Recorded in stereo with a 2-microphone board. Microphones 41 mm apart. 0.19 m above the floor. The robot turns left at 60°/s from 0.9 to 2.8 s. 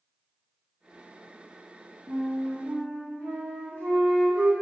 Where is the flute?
70° right, 3 m; by 4.5 s 115° right, 3 m.